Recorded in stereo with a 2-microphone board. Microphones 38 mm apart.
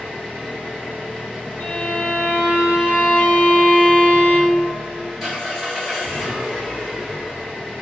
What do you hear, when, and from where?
0.0 s an engine running: 10° right (ahead or behind), 1.2 m
1.6 s a violin: 65° left (ahead or behind), 0.5 m